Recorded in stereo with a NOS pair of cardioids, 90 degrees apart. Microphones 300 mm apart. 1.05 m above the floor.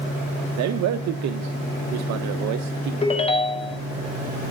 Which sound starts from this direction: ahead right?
A man speaking, at 0.6 s.